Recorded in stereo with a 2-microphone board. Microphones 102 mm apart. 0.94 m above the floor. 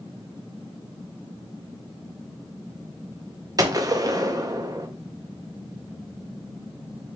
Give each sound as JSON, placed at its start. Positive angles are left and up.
{"t": 3.6, "sound": "a gunshot", "side_deg": -35, "distance_m": 0.6}